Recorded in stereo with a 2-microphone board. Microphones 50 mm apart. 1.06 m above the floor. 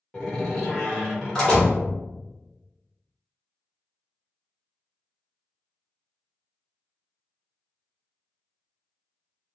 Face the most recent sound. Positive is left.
turn(degrees=15)  # may be behind; listen again after turning